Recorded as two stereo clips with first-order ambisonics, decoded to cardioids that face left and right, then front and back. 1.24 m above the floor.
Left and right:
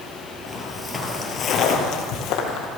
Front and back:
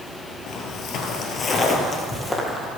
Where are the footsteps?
5° right, 1.5 m; by 2.7 s 90° left, 2 m.